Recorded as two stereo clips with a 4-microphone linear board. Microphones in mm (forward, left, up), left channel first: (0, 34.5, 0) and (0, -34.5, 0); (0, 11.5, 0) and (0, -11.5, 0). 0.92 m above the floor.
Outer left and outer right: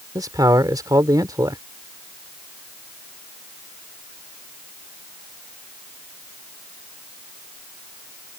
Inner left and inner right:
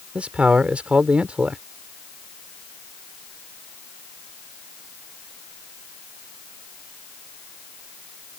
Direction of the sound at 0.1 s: 65° right (ahead or behind).